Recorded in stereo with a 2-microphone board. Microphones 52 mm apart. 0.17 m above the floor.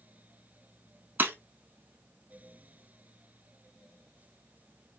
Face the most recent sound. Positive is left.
turn(degrees=-40)  # may be behind; listen again after turning